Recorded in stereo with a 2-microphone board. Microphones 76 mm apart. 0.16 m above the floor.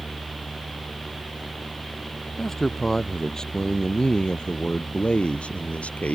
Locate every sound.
2.4 s a man speaking: 5° left (ahead or behind); by 6.2 s 20° left (ahead or behind)